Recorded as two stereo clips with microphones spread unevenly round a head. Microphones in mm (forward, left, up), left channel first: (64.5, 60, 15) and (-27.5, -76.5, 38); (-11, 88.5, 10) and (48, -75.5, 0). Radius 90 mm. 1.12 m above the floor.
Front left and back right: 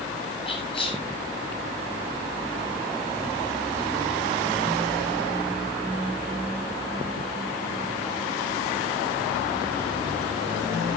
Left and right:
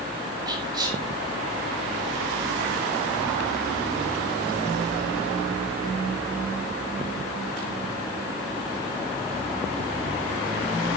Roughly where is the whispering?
Ahead.